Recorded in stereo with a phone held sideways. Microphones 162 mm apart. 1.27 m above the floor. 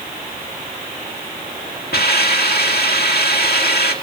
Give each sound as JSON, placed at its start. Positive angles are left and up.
{"t": 1.9, "sound": "a hiss", "side_deg": 85, "distance_m": 1.7}